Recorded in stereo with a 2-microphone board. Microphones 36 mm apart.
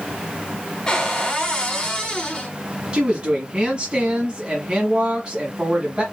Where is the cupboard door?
20° left (ahead or behind), 1.3 m.